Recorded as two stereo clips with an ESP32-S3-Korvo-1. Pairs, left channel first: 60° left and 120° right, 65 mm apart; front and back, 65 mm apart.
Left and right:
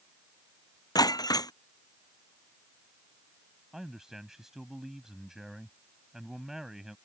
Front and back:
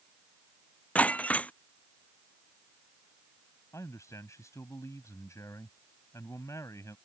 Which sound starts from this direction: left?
Breaking glass, at 0.9 s.